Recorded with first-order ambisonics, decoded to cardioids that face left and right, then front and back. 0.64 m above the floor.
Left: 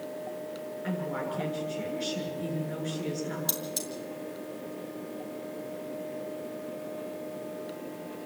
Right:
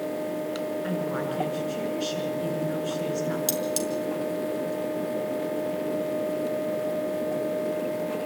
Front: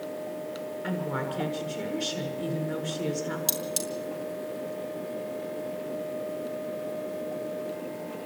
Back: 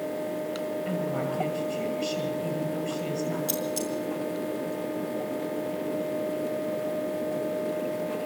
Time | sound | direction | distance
0.8 | a woman speaking | 35° right | 7 m
3.5 | cutlery clinking | 55° right | 5 m